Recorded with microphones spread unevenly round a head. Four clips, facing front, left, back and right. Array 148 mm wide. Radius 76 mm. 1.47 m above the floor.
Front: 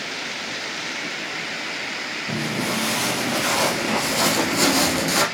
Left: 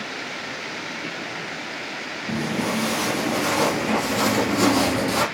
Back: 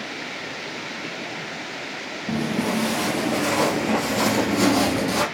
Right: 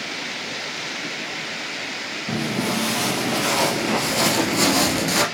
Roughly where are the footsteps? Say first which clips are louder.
Right 1 dB, back 3 dB; behind right.